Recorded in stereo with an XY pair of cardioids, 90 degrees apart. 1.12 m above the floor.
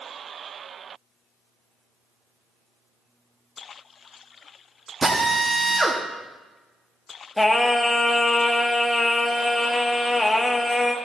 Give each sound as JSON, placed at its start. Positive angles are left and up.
{"t": 5.0, "sound": "a drill", "azimuth_deg": -30, "distance_m": 2.0}
{"t": 7.4, "sound": "singing", "azimuth_deg": 20, "distance_m": 1.1}